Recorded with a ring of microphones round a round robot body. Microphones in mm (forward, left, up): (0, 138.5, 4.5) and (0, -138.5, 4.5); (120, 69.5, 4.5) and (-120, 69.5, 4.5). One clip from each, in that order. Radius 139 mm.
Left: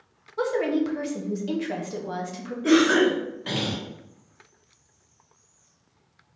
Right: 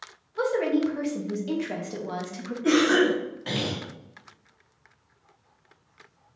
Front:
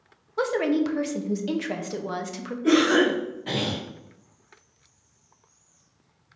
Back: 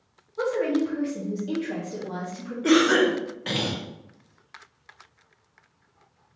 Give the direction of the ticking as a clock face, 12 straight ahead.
No ticking in this recording.